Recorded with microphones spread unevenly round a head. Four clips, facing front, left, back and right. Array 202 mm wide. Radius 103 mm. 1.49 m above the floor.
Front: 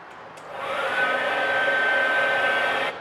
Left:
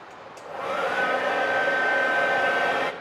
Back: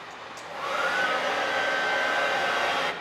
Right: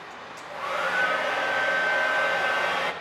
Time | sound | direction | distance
0.1 | a hair dryer | 75° left | 1.3 m